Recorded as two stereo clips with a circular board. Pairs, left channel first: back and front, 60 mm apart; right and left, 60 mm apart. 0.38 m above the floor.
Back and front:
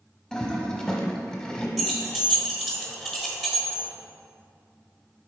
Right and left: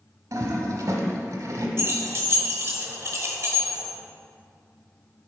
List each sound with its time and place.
0.3 s a toilet flushing: 95° left, 0.9 m
1.8 s keys jangling: 90° left, 1.0 m